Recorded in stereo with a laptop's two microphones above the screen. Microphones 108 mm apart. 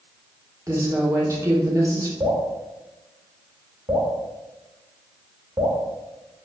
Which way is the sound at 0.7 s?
25° right (ahead or behind).